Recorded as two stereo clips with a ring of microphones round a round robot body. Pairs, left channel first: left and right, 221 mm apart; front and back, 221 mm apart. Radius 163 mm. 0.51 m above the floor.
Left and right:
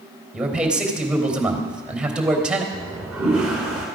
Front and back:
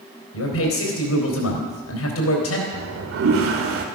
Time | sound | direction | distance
0.3 | a man speaking | 5° right | 3.5 m
2.7 | a toilet flushing | 175° right | 1.7 m